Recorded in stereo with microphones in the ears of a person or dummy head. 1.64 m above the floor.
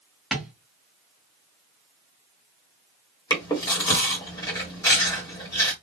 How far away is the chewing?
About 1.4 m.